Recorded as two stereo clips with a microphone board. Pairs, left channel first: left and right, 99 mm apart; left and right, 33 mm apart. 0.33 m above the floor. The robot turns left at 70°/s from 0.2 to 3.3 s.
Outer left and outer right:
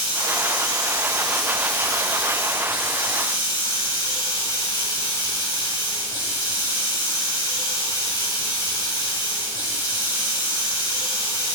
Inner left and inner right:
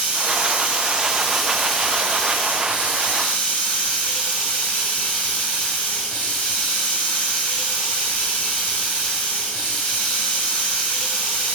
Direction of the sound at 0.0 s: 95° right.